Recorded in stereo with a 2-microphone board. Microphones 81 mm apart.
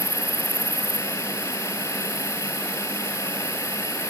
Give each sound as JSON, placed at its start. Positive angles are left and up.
{"t": 0.0, "sound": "an insect", "side_deg": 45}